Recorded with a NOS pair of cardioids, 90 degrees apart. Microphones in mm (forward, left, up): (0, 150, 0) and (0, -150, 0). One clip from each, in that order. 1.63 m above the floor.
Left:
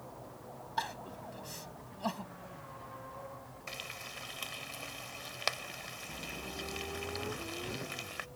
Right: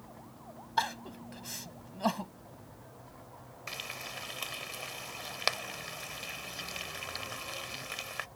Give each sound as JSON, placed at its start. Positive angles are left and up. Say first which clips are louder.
{"t": 0.8, "sound": "crying", "louder": "right 5 dB", "azimuth_deg": -45}
{"t": 3.7, "sound": "frying", "louder": "right 3 dB", "azimuth_deg": -30}